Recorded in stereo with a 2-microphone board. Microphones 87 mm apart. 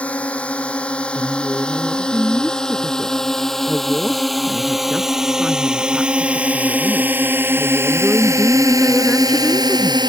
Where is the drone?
15° left (ahead or behind); by 10.1 s 55° right (ahead or behind).